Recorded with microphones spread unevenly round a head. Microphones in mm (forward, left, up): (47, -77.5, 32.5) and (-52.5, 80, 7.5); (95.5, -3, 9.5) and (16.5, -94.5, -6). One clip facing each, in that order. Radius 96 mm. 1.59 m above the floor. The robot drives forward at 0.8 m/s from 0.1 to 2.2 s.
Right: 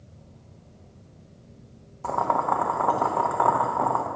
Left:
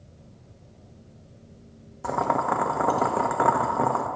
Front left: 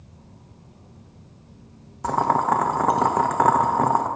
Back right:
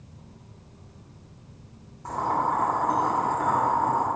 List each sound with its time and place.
2.0 s boiling: 45° left, 0.6 m; by 4.1 s 55° left, 0.5 m